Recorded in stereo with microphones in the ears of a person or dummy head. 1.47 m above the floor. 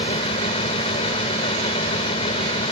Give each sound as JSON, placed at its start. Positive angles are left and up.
{"t": 0.0, "sound": "a fan", "side_deg": 30}